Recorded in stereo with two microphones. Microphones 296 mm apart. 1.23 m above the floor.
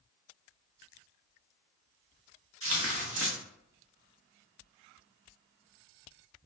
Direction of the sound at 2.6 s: 50° right (ahead or behind).